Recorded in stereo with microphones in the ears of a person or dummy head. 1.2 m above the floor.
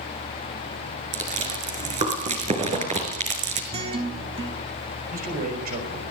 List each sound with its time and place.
1.1 s chewing: 30° right (ahead or behind), 6 m
3.7 s a guitar: 25° right (ahead or behind), 4 m
5.1 s a man speaking: 40° right (ahead or behind), 5.5 m